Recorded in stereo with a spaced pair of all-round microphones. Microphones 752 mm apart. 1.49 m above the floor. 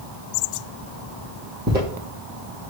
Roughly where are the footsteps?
Centre.